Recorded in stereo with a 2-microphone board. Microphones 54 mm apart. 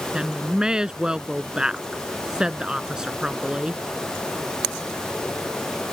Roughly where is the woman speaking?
Centre.